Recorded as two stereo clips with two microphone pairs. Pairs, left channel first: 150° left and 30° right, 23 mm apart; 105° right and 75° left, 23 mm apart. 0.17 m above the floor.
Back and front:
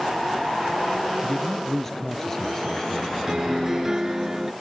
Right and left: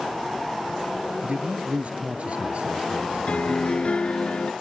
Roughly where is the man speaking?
Left.